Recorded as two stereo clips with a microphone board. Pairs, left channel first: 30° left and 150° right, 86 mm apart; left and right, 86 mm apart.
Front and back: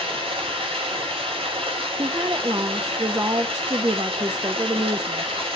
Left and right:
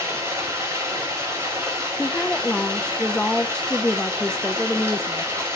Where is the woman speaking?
170° left, 0.7 m.